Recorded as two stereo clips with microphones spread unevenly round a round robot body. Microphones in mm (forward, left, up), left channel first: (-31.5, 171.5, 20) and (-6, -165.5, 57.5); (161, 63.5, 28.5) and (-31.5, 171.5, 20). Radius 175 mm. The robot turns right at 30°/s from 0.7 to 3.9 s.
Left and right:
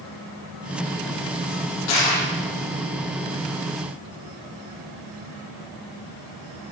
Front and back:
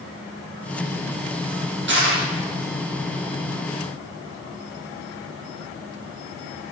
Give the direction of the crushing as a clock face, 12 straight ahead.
8 o'clock.